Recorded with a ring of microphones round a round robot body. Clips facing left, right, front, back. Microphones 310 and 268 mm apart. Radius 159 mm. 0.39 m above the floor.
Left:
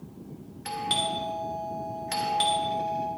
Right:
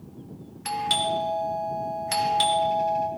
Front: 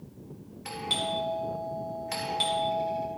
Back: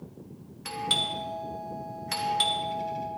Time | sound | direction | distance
0.7 | a doorbell | 130° right | 1.3 m